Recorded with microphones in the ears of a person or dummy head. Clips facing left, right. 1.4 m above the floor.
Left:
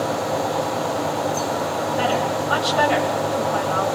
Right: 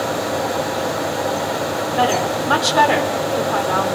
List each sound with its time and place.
2.0 s a woman speaking: 85° right, 4 m